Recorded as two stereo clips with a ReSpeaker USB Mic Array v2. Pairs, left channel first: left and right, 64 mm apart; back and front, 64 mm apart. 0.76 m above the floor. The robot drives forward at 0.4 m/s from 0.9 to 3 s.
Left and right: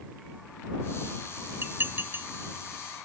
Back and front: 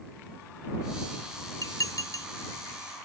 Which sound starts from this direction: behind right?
Dishes clattering, at 1.6 s.